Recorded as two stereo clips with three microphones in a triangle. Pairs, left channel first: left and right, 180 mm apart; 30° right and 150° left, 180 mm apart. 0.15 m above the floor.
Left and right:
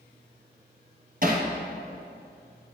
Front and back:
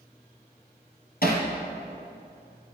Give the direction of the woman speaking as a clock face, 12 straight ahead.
No woman speaking in this recording.